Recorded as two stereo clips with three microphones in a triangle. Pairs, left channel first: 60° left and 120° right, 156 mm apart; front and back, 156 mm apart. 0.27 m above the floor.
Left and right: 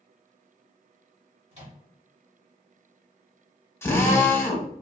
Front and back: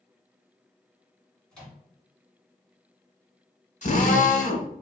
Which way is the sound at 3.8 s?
10° right.